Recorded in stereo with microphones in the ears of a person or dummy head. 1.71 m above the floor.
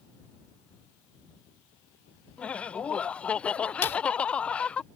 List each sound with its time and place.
2.4 s laughter: centre (ahead or behind)
3.8 s a clap: 15° left (ahead or behind)